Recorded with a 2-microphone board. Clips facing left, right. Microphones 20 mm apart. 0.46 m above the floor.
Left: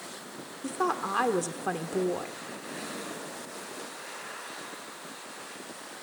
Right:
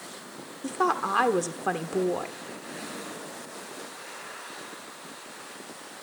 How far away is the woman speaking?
About 0.9 m.